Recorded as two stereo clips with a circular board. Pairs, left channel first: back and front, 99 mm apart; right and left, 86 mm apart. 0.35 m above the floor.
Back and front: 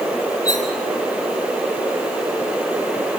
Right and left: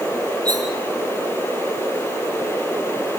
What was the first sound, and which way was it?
Cutlery clinking, 130° left.